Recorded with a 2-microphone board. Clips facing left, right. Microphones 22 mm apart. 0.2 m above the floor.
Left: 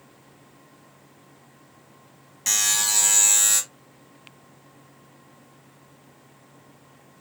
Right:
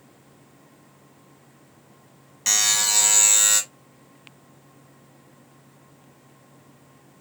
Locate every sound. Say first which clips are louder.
2.5 s a buzzer: right 2 dB; 15° right (ahead or behind), 1.4 m